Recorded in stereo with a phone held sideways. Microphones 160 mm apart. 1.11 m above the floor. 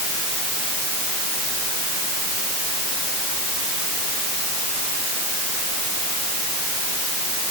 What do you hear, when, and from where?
Only background noise.